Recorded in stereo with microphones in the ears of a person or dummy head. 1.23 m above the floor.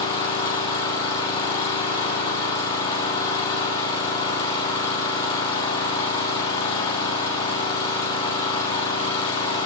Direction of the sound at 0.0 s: 30° left (ahead or behind).